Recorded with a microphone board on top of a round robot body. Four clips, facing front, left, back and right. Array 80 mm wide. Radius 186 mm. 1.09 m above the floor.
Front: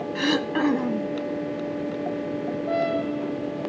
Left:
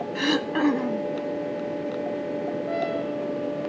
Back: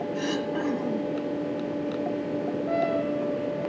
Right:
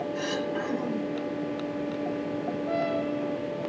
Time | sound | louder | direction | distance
0.1 | throat clearing | left 5 dB, front 8 dB | 45° left | 1.1 m